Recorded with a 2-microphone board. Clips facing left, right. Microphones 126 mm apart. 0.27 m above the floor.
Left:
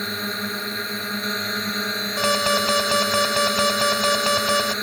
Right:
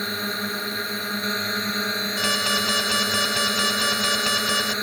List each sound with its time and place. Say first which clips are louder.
0.0 s a drone: even; centre (ahead or behind)
2.2 s an alarm: left 8 dB; 55° left (ahead or behind)